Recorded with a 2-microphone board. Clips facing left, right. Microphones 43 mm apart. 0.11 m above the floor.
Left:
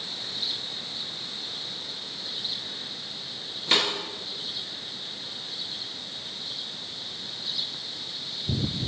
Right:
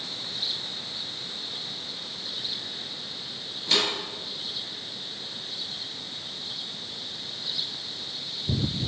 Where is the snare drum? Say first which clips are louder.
Left 1 dB; 30° left (ahead or behind), 1.2 m.